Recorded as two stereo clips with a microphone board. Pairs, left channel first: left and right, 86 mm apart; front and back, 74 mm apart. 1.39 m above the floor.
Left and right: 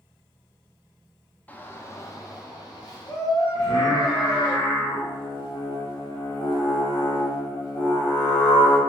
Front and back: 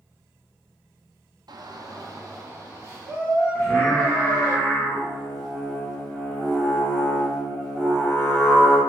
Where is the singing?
85° left, 1.1 m.